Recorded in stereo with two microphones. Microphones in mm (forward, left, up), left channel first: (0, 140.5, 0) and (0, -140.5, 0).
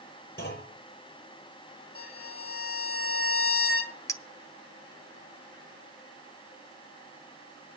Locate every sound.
0.4 s a clunk: 45° left (ahead or behind), 6.5 m
1.9 s a violin: 55° left (ahead or behind), 1.5 m
4.1 s a clink: 10° left (ahead or behind), 0.7 m